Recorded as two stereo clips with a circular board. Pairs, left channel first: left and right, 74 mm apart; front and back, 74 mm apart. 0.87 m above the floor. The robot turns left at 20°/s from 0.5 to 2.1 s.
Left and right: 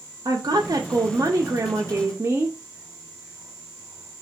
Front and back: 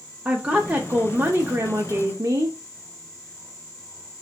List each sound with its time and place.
0.2 s a woman speaking: 110° right, 0.6 m; by 2.6 s 140° right, 0.6 m